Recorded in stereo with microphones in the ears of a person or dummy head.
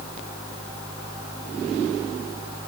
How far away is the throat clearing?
I don't hear throat clearing.